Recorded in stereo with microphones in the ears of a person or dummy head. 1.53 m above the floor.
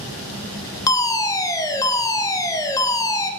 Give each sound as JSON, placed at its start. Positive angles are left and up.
{"t": 0.9, "sound": "a fire alarm", "side_deg": 15, "distance_m": 0.8}